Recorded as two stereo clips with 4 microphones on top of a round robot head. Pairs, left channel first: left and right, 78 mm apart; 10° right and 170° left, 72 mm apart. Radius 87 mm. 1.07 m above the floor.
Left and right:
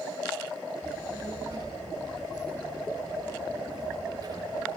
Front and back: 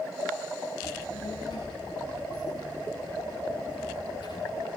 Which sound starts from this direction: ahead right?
A child speaking, at 0.8 s.